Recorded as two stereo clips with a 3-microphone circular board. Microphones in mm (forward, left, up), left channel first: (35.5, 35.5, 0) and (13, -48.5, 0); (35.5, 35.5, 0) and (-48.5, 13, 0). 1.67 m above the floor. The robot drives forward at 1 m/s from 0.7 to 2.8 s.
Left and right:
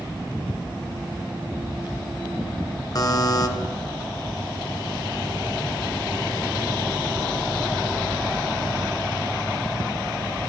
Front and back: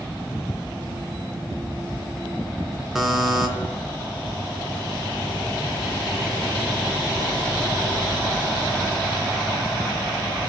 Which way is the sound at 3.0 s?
110° left.